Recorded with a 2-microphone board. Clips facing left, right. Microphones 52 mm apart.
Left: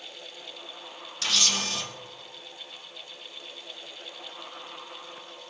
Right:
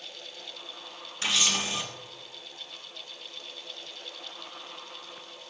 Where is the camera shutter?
20° right (ahead or behind), 3.5 m.